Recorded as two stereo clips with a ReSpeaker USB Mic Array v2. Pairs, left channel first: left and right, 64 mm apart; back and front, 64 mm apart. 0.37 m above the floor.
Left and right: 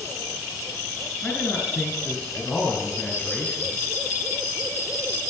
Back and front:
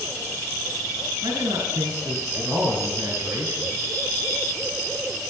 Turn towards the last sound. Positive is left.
turn(degrees=25)